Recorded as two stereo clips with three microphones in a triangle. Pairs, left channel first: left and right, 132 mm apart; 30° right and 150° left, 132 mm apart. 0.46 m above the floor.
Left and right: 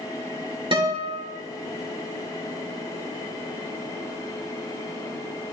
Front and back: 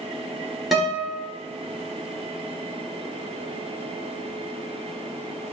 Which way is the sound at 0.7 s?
120° right.